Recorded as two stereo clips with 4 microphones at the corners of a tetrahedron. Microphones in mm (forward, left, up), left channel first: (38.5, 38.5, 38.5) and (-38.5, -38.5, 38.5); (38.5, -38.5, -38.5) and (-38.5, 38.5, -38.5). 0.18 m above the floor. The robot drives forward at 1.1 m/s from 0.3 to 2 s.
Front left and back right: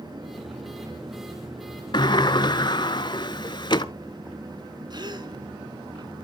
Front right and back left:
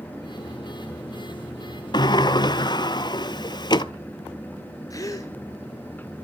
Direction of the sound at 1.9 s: Straight ahead.